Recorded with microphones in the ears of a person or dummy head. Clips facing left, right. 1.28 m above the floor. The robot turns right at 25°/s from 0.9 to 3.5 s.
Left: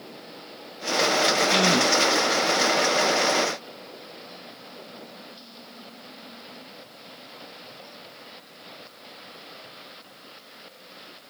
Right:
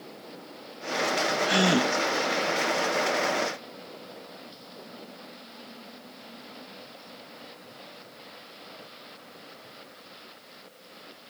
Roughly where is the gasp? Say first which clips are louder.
Left 1 dB; centre.